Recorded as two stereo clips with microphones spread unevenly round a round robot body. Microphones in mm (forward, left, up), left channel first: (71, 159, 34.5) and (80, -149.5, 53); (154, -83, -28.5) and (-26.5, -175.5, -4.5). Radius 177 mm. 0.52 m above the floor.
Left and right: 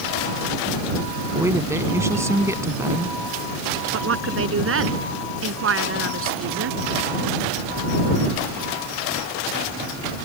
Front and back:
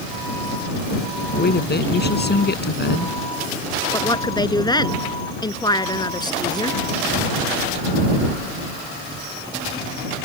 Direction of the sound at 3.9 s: 45° right.